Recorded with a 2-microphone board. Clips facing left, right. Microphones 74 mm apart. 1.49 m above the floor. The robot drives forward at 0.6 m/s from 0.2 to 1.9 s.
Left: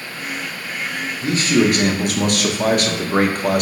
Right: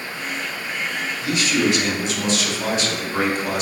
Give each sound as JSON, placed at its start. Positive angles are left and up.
{"t": 1.2, "sound": "a man speaking", "side_deg": 35, "distance_m": 0.8}